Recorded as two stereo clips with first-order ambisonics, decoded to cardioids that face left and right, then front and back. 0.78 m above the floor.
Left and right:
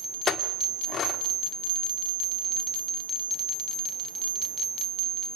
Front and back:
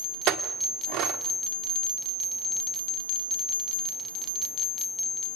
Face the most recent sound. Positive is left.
turn(degrees=150)